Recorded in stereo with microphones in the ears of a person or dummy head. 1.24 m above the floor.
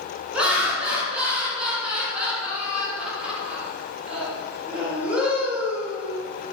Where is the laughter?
5° right (ahead or behind), 1.1 m.